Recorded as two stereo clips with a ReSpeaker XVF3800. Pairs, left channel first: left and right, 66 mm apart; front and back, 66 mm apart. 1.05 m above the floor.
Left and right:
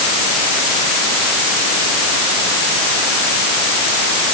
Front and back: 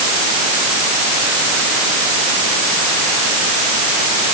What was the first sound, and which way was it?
Only background noise.